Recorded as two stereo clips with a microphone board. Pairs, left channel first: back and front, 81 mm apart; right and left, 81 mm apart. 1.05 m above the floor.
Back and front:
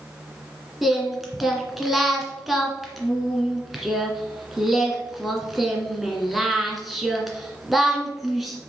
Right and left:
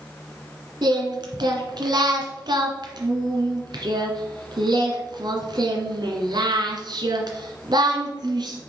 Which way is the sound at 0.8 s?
90° left.